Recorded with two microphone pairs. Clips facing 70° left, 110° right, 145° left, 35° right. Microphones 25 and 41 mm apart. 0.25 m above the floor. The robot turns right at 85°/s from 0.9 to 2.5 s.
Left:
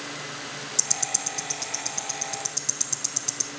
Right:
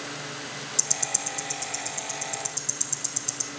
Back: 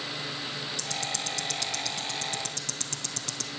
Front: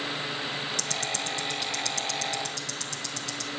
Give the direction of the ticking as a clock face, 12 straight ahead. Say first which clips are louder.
Left 2 dB, front 2 dB; 1 o'clock.